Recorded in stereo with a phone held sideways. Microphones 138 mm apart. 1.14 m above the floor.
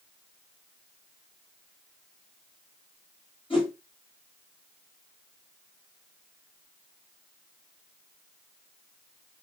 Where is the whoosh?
40° left (ahead or behind), 1.7 m.